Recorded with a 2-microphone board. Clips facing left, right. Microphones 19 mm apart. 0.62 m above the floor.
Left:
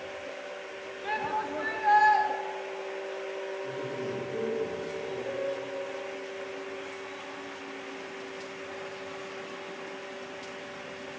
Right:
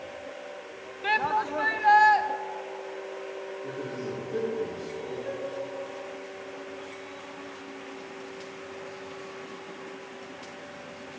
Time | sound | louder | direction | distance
1.0 | a shout | right 6 dB | 35° right (ahead or behind) | 0.6 m
3.6 | a man speaking | even | 75° right (ahead or behind) | 7 m
5.2 | a piano | left 1 dB | 15° right (ahead or behind) | 6 m